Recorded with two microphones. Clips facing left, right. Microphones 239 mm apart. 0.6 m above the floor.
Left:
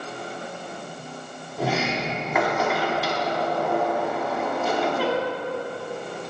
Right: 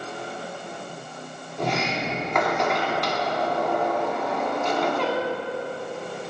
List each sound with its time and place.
1.6 s a sliding door: 5° left (ahead or behind), 1.1 m